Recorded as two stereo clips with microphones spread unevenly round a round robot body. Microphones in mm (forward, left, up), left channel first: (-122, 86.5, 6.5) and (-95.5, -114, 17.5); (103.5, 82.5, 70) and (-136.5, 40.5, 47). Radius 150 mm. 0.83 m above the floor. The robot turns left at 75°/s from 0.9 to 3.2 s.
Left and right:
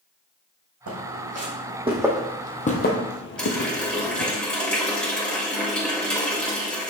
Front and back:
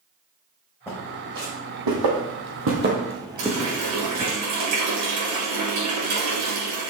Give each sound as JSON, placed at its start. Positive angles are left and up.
{"t": 0.9, "sound": "footsteps", "azimuth_deg": -70, "distance_m": 3.0}
{"t": 3.4, "sound": "a running tap", "azimuth_deg": -175, "distance_m": 3.5}